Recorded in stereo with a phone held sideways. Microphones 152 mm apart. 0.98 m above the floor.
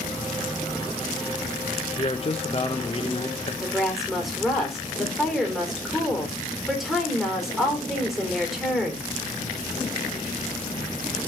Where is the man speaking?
40° left (ahead or behind), 1.1 m.